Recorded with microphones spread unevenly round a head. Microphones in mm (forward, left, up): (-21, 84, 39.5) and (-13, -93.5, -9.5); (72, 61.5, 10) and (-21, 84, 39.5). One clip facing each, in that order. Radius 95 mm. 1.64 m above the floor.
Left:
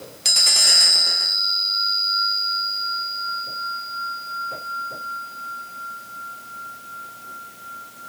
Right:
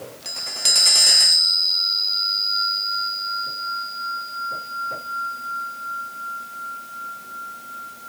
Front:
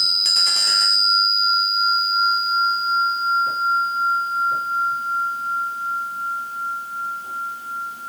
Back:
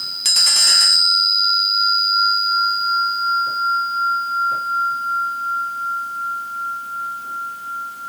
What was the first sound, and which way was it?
Only background noise.